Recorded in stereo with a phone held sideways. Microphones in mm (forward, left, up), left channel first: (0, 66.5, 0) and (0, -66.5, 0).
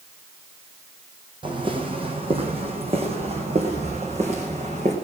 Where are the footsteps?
35° right (ahead or behind), 3 m; by 4.9 s 55° right (ahead or behind), 5 m.